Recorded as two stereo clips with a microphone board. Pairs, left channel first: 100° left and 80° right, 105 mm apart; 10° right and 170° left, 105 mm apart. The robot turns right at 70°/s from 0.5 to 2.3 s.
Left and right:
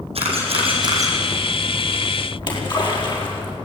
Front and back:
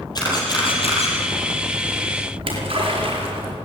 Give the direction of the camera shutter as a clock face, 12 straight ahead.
2 o'clock.